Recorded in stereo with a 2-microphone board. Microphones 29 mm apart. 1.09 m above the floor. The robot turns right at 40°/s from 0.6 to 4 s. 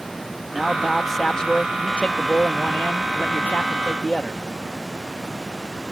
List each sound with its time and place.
0.5 s a man speaking: 10° right; by 4.4 s 125° left